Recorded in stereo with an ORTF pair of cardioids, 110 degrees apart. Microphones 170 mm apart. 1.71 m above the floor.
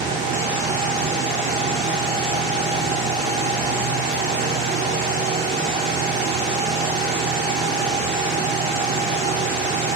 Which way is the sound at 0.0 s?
70° right.